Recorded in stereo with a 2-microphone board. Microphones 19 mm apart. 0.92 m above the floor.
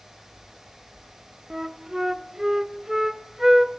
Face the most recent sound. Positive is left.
turn(degrees=-15)  # may be behind; listen again after turning